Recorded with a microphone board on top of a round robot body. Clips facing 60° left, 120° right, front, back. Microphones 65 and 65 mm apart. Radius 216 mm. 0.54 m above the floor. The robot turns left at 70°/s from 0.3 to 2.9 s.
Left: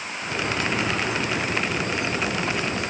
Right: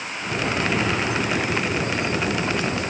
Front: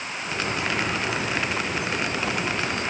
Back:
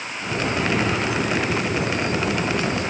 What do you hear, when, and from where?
Only background noise.